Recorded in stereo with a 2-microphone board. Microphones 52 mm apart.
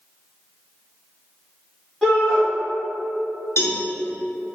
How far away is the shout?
About 1.5 m.